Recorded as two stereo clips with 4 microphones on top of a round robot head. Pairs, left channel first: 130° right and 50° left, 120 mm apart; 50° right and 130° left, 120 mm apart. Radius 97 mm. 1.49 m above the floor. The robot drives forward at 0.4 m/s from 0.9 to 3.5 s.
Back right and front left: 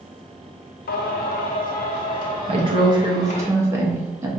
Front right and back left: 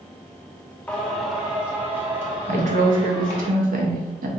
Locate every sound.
0.9 s singing: 130° right, 0.5 m; by 3.5 s 165° right, 1.4 m
2.5 s a woman speaking: 95° left, 0.9 m; by 4.3 s 120° left, 1.1 m